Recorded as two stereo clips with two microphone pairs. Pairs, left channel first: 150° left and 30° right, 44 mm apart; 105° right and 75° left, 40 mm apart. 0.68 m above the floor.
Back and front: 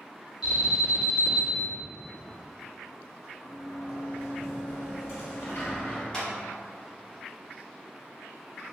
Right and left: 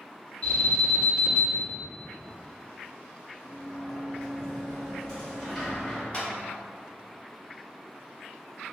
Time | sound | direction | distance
0.4 | an alarm | 120° right | 1.8 m
3.4 | a sliding door | straight behind | 0.9 m
6.1 | a clap | 150° right | 0.8 m